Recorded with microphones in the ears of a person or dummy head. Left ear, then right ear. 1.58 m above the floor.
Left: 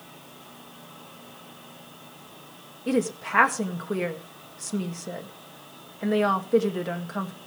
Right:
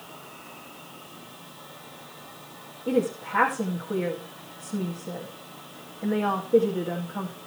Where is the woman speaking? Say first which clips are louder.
Right 1 dB; 75° left (ahead or behind), 2.0 m.